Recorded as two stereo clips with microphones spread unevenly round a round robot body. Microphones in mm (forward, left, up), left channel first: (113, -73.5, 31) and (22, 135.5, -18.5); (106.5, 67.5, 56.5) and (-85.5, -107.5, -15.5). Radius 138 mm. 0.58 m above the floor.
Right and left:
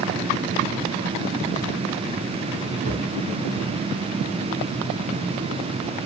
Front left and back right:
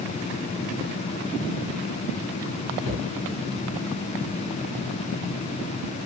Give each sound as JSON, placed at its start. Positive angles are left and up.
{"t": 2.8, "sound": "a cupboard door", "azimuth_deg": 60, "distance_m": 3.5}